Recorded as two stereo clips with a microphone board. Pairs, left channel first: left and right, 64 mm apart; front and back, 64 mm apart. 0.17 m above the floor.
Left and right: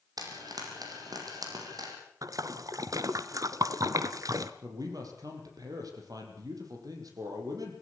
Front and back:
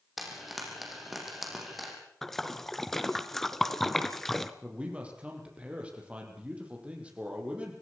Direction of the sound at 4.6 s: 110° right.